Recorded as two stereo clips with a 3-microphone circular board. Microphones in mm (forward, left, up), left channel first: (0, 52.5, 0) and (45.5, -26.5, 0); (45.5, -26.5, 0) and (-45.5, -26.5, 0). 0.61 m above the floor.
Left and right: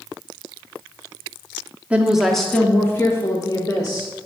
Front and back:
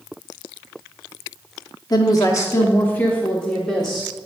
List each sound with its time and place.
1.9 s a woman speaking: 10° left, 0.9 m; by 4.1 s 90° left, 1.3 m